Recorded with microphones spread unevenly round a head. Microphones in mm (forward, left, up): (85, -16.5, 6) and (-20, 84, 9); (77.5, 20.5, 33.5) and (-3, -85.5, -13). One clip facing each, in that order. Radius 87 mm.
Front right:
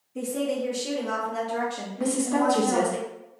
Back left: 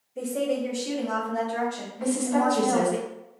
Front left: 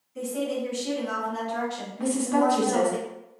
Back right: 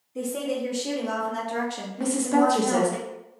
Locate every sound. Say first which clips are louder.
0.1 s a woman speaking: back left 1 dB, back right 1 dB; 75° right, 1.7 m; by 3.0 s 160° right, 0.9 m
2.0 s a woman speaking: even, back right 2 dB; 85° right, 1.1 m